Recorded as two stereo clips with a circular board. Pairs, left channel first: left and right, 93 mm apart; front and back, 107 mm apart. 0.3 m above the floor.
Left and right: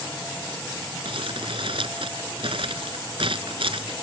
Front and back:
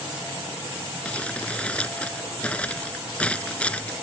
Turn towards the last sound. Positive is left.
turn(degrees=-75)